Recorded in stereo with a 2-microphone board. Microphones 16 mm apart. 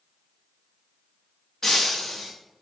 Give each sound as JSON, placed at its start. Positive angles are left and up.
{"t": 1.6, "sound": "breaking glass", "side_deg": 25, "distance_m": 1.6}